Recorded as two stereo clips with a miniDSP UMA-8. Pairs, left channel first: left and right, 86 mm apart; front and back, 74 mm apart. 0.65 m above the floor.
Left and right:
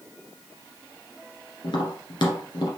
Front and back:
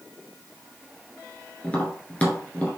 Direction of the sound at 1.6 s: 70° left.